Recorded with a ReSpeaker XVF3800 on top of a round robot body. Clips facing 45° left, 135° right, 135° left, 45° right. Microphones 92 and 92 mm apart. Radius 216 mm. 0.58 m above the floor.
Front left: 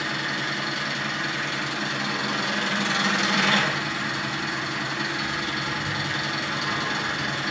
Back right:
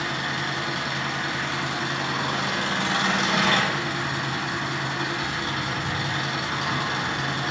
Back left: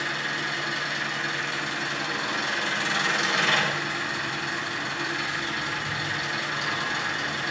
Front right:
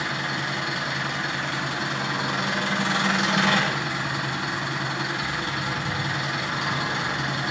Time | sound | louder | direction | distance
0.0 | an engine running | back right 1 dB, front right 2 dB | 85° right | 5.5 m